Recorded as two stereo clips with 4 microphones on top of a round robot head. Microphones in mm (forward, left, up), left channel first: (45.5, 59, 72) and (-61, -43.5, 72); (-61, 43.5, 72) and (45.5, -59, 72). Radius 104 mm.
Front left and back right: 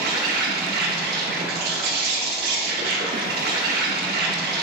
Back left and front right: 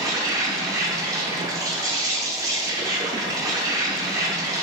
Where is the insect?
110° right, 0.8 m.